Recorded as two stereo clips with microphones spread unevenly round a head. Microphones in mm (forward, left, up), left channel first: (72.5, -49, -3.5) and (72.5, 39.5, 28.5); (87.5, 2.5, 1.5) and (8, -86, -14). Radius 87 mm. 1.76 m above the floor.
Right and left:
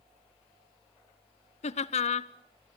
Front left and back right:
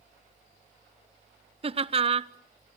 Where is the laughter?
90° right, 0.8 m.